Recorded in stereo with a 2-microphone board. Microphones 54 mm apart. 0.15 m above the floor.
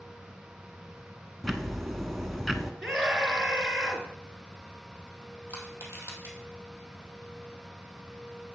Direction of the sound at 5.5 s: 55° left (ahead or behind).